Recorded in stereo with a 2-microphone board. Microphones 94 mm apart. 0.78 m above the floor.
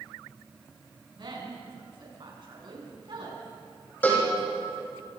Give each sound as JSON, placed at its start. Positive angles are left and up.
{"t": 1.1, "sound": "a woman speaking", "side_deg": -55, "distance_m": 7.5}
{"t": 4.0, "sound": "a cowbell", "side_deg": 20, "distance_m": 7.0}